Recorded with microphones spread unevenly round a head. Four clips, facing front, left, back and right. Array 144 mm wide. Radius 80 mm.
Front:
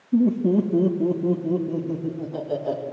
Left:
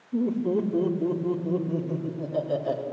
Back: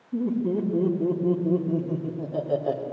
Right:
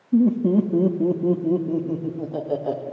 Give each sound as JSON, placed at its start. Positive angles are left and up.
{"t": 0.1, "sound": "laughter", "azimuth_deg": -55, "distance_m": 1.9}